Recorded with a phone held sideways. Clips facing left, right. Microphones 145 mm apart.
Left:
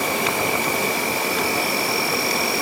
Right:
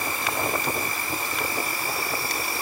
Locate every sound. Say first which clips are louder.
0.0 s an insect: left 6 dB; 75° left (ahead or behind), 0.9 m